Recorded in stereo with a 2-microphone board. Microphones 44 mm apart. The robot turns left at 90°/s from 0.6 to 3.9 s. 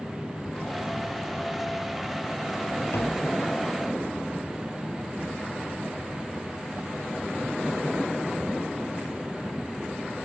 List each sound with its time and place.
2.9 s tapping: 110° left; by 3.3 s 70° left